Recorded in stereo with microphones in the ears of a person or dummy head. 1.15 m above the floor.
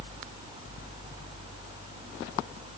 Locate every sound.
Only background noise.